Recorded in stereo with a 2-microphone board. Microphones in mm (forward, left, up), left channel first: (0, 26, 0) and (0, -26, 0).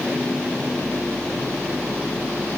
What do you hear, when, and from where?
Only background noise.